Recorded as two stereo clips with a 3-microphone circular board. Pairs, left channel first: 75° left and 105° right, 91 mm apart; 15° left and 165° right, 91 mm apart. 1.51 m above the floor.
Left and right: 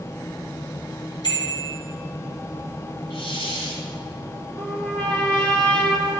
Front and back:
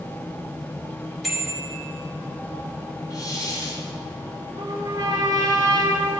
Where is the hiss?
60° left, 3 m.